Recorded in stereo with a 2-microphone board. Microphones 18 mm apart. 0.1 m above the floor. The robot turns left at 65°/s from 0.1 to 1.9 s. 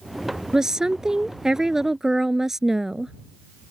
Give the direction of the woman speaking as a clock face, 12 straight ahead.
2 o'clock.